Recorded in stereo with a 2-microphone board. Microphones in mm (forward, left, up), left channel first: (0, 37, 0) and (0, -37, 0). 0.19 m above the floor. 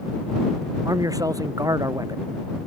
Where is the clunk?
No clunk in this recording.